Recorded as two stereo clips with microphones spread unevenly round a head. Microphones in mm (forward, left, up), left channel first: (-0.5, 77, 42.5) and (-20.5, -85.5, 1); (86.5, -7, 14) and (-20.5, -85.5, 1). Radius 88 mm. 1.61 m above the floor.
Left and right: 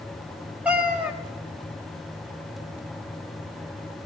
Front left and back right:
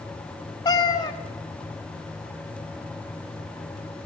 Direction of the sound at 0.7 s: Straight ahead.